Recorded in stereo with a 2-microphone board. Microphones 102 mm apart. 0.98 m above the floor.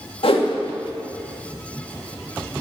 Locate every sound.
0.2 s a whoosh: 70° left (ahead or behind), 1.7 m